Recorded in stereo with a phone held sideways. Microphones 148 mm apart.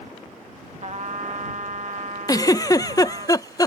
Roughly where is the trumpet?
Right.